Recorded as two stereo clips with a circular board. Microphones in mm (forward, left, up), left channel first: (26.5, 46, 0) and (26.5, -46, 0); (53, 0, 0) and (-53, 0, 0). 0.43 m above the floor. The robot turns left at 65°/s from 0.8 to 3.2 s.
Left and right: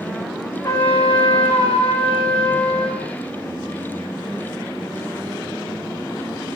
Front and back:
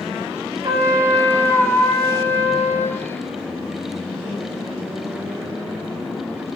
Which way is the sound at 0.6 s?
140° left.